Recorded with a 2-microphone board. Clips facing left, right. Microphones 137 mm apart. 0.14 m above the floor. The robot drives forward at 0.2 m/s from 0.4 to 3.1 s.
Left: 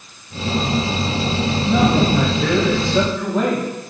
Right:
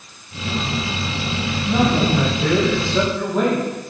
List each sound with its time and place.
1.7 s a man speaking: 5° right (ahead or behind), 4.5 m